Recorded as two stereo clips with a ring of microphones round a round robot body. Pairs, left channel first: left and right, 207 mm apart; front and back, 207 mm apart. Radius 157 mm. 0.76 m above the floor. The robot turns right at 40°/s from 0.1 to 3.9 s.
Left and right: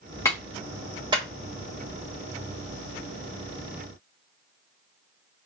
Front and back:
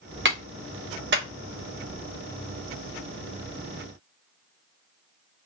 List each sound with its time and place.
0.2 s a clap: 165° left, 0.9 m; by 1.3 s 155° right, 0.9 m